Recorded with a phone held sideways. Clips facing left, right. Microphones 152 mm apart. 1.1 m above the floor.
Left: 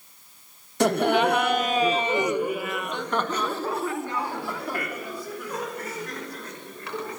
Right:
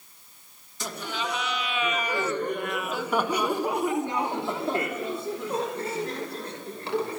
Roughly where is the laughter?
Left.